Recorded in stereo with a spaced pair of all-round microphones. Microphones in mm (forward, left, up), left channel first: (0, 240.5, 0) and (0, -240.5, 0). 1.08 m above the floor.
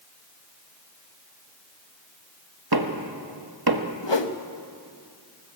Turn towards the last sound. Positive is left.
turn(degrees=65)  # may be behind; listen again after turning